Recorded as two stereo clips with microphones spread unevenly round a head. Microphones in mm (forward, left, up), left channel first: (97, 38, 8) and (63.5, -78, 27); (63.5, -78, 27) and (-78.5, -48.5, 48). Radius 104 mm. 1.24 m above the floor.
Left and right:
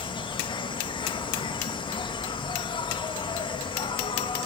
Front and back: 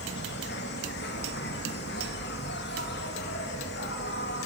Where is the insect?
20° left, 1.2 m.